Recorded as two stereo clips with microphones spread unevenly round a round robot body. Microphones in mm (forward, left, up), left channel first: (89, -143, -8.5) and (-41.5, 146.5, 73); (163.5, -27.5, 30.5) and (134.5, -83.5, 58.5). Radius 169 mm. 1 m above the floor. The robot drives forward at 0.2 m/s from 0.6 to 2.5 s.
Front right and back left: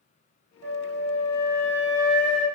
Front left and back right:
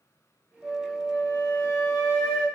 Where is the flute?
140° left, 1.3 m; by 2.5 s 150° left, 1.5 m.